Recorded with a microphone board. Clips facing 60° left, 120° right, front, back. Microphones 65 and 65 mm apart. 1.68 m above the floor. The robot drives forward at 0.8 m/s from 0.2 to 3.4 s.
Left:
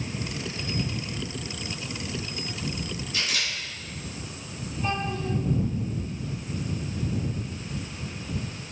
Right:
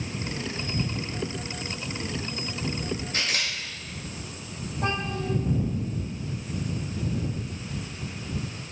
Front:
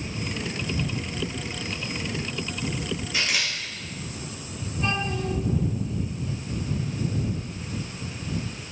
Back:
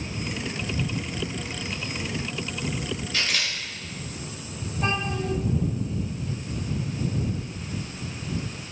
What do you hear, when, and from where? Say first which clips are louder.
3.1 s a camera shutter: left 1 dB, front 1 dB; 75° right, 5.5 m; by 3.5 s 80° right, 5.5 m
4.8 s a child speaking: even, even; 120° right, 5 m